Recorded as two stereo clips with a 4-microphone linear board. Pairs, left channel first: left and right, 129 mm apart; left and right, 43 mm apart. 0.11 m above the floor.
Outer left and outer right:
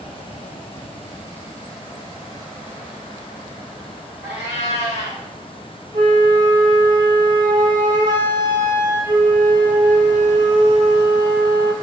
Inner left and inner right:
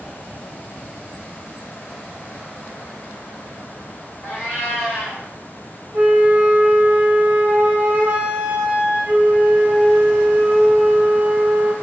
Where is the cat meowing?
55° left (ahead or behind), 1.9 m.